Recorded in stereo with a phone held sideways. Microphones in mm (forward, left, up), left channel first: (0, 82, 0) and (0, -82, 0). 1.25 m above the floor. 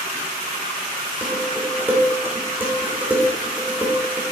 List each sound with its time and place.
1.2 s dishes clattering: 10° right (ahead or behind), 2.5 m